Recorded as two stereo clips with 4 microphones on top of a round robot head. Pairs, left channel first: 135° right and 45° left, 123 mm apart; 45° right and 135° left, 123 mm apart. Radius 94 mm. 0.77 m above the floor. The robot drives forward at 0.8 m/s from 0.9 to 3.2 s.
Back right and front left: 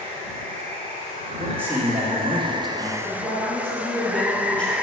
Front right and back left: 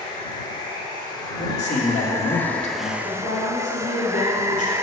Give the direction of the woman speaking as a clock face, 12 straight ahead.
2 o'clock.